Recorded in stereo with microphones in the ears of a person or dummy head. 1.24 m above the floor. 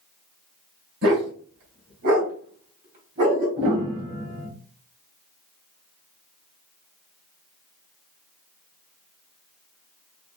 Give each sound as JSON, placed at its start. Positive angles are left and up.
{"t": 1.0, "sound": "a dog barking", "side_deg": -60, "distance_m": 2.5}
{"t": 3.6, "sound": "a piano", "side_deg": -45, "distance_m": 2.5}